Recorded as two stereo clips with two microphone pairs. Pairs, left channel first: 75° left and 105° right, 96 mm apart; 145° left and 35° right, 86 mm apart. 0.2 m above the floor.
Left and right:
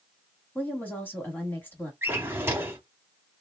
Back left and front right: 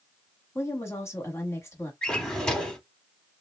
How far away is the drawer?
About 0.7 m.